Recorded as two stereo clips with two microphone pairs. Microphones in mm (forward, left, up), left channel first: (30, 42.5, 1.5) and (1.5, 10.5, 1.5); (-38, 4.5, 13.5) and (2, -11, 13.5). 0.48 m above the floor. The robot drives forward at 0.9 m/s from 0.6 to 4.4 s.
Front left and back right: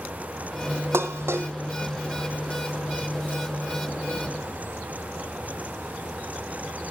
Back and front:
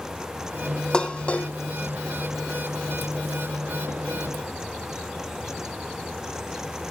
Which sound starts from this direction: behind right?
Dishes clattering, at 0.9 s.